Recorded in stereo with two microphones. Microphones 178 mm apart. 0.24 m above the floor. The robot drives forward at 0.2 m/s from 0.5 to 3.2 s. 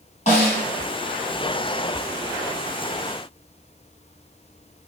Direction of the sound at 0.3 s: 40° left (ahead or behind).